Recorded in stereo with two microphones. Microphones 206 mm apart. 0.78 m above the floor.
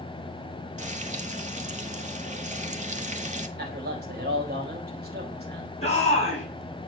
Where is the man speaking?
50° right (ahead or behind), 3.5 m.